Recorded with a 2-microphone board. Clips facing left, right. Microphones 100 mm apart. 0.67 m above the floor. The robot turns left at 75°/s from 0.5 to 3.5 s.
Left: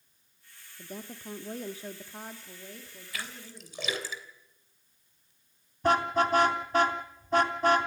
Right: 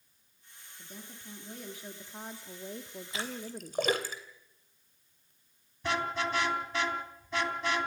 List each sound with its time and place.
0.8 s a woman speaking: 115° left, 1.3 m; by 3.8 s 85° right, 1.3 m
3.1 s a splash: 20° right (ahead or behind), 3 m; by 5.3 s 45° right (ahead or behind), 3 m
5.8 s a car horn: 40° left (ahead or behind), 3 m